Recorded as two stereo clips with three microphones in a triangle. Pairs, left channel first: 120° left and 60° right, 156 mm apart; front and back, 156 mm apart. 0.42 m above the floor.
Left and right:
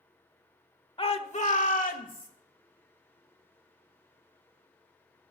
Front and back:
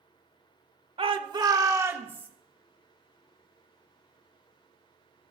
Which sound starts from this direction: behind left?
A shout, at 1.0 s.